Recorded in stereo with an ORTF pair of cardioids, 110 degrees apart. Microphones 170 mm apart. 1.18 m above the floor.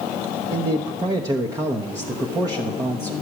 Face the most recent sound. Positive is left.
turn(degrees=-20)